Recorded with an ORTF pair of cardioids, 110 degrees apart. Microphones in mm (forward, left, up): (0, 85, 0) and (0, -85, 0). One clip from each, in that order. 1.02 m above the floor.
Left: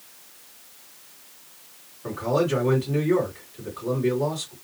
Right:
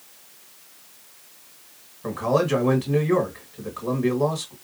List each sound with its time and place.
2.0 s a man speaking: 45° right, 1.7 m